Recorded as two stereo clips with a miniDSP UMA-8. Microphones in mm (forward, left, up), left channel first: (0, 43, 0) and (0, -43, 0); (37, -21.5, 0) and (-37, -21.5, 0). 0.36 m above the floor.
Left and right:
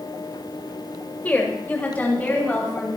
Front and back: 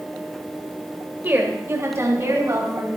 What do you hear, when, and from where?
1.2 s a woman speaking: 145° left, 1.6 m; by 2.9 s 160° left, 2.5 m